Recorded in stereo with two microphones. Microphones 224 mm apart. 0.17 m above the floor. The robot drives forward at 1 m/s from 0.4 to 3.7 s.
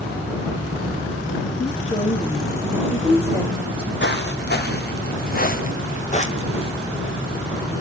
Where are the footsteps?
50° left (ahead or behind), 3 m; by 6.7 s 25° left (ahead or behind), 2 m.